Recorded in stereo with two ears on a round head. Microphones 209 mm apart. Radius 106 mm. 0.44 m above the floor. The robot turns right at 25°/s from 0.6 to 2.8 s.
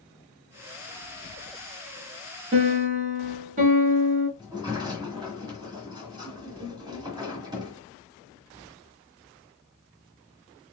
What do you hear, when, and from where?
2.5 s a piano: 30° right (ahead or behind), 2 m; by 4.3 s 35° right (ahead or behind), 2 m
4.4 s a sliding door: 20° right (ahead or behind), 1.3 m